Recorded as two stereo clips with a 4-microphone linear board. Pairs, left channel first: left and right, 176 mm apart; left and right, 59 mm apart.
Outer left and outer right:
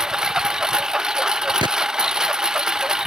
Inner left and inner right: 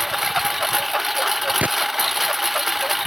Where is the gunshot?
25° right (ahead or behind).